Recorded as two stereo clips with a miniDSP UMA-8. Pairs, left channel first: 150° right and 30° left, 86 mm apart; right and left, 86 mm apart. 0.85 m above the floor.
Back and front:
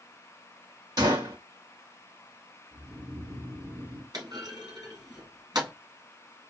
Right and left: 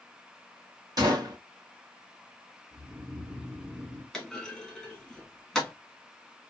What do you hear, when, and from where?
1.0 s a gunshot: 60° left, 1.8 m
2.7 s snoring: 65° left, 2.5 m
4.1 s a clunk: straight ahead, 1.9 m